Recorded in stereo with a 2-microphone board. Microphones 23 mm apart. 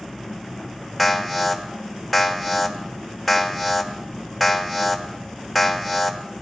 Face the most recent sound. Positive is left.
turn(degrees=0)  # may be behind; listen again after turning